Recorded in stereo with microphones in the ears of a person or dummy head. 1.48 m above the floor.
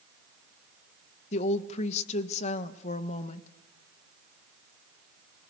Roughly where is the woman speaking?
Left.